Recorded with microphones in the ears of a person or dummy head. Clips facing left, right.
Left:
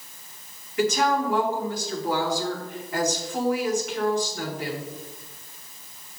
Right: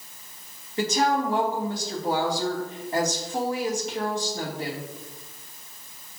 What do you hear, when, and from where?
0.8 s a woman speaking: 25° right (ahead or behind), 2.5 m